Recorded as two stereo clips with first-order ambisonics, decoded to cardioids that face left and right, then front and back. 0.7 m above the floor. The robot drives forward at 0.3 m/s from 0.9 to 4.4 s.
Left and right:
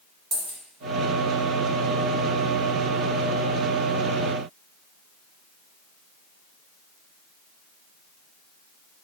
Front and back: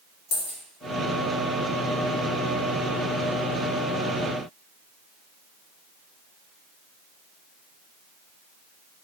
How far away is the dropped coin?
About 0.9 m.